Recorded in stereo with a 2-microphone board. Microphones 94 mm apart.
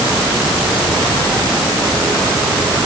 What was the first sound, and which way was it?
Only background noise.